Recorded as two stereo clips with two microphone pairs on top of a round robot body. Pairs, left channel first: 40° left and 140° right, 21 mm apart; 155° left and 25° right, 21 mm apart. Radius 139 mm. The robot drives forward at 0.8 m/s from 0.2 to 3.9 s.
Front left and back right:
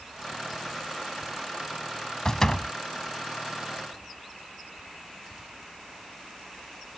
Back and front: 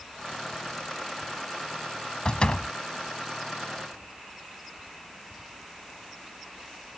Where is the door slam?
105° left; by 2.7 s 110° left.